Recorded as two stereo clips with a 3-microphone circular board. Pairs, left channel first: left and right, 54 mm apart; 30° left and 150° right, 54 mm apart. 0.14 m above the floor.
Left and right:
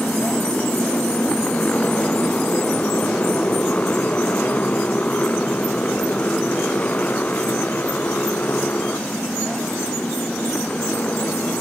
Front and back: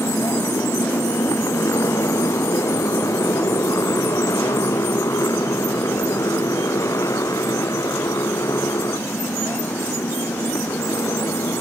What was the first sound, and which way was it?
A motorcycle, 20° left.